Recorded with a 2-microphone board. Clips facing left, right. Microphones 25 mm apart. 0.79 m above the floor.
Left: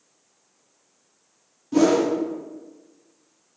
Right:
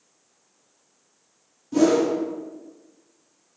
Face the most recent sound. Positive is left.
turn(degrees=10)  # may be behind; listen again after turning